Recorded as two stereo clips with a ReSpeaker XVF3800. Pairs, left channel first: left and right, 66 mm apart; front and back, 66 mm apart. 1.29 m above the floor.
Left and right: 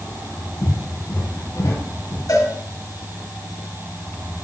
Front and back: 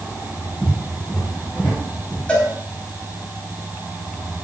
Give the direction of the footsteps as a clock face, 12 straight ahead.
10 o'clock.